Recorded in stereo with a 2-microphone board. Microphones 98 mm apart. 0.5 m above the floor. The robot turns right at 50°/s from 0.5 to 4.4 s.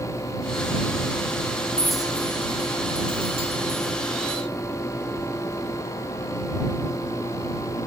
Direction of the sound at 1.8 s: 10° left (ahead or behind).